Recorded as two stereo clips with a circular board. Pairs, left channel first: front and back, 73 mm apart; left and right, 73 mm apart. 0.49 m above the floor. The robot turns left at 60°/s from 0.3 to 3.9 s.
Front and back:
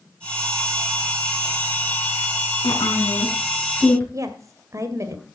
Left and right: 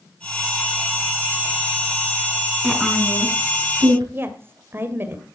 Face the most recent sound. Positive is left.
turn(degrees=-145)